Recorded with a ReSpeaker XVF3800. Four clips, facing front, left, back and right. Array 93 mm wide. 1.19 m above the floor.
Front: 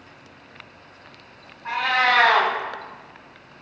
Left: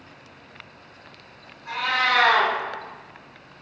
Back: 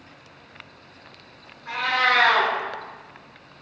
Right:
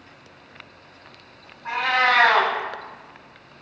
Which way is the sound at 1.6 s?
40° right.